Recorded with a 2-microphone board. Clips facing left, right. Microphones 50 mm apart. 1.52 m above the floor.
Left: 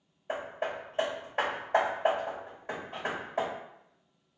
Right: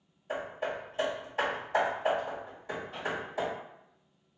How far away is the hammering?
About 1.8 m.